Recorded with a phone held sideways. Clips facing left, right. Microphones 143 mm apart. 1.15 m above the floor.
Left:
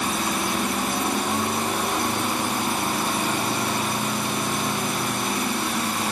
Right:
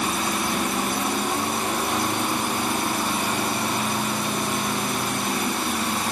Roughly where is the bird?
I don't hear a bird.